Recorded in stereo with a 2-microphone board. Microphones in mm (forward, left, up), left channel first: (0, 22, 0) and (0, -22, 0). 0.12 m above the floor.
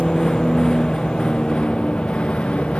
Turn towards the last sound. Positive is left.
turn(degrees=25)  # may be behind; listen again after turning